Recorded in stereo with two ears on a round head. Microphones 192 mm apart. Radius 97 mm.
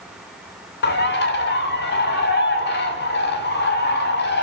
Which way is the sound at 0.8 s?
55° left (ahead or behind).